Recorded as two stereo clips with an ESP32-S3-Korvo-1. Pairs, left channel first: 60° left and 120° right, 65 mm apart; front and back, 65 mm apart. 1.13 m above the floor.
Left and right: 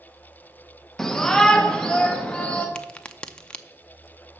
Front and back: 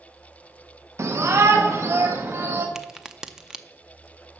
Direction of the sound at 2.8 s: 110° left.